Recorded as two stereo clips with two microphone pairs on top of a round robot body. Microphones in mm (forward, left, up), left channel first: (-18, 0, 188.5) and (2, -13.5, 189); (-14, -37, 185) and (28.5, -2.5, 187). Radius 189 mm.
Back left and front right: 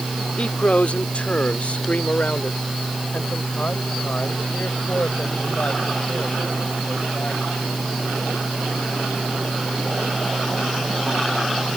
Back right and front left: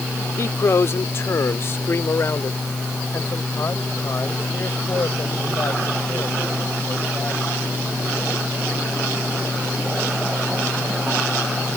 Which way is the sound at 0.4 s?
Straight behind.